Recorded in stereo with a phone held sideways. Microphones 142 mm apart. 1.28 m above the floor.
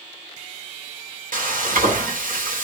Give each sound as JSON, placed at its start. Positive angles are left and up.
{"t": 1.3, "sound": "frying", "side_deg": -75, "distance_m": 0.8}